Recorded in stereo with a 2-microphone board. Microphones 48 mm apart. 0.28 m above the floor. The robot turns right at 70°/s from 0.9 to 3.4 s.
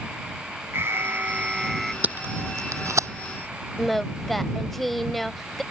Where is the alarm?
70° right; by 1.9 s 5° left.